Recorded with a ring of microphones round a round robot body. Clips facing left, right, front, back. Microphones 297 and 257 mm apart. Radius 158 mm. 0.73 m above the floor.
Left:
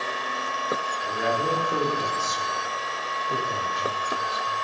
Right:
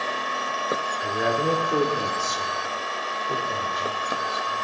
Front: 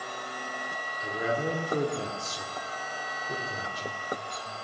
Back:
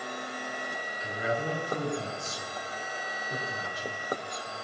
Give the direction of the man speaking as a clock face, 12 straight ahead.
2 o'clock.